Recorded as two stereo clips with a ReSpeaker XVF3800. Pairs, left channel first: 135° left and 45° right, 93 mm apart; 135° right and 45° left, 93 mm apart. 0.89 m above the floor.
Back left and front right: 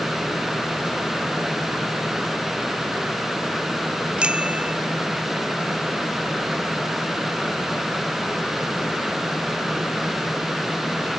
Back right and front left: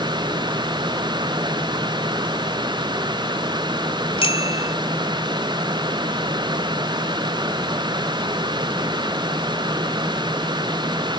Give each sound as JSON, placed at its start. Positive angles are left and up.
{"t": 4.2, "sound": "a bicycle bell", "azimuth_deg": -125}